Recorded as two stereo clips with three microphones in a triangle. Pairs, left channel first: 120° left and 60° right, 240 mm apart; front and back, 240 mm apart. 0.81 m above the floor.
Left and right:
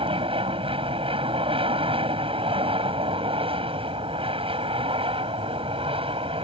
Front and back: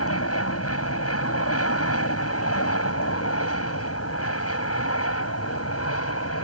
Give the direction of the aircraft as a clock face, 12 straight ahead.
12 o'clock.